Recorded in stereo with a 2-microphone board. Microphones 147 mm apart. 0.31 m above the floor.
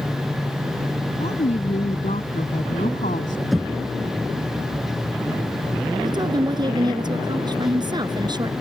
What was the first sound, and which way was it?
A woman speaking, 50° left (ahead or behind).